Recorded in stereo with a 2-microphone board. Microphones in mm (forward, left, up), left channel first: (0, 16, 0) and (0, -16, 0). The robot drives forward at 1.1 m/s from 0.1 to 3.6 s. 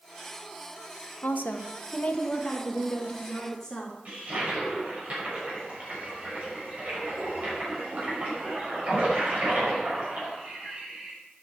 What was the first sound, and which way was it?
A woman speaking, 70° left (ahead or behind).